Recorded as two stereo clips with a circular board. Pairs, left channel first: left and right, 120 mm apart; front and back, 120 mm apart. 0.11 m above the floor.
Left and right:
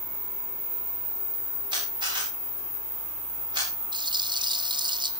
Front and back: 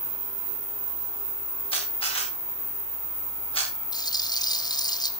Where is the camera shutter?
40° right, 8 m.